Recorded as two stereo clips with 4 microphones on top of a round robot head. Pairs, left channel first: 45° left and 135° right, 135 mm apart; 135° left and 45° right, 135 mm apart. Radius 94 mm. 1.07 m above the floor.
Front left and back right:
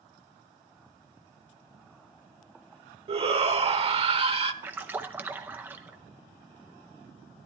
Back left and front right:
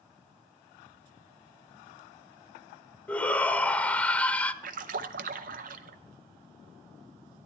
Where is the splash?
60° right, 0.6 m.